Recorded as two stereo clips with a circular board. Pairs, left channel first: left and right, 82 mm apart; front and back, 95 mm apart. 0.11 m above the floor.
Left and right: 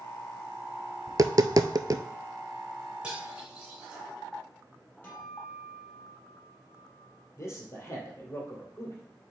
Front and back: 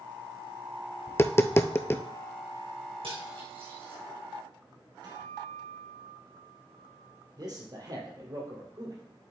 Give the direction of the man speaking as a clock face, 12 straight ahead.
7 o'clock.